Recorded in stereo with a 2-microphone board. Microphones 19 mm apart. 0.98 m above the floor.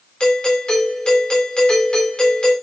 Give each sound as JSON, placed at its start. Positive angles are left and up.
{"t": 0.2, "sound": "a doorbell", "side_deg": 50, "distance_m": 3.5}